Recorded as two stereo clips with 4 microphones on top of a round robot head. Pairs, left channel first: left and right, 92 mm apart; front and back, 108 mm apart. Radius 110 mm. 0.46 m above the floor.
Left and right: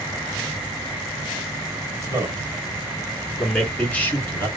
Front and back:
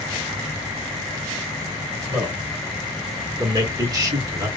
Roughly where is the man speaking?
Behind right.